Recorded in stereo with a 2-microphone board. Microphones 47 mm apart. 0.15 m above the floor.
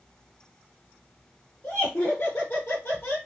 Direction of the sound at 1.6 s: 35° left (ahead or behind).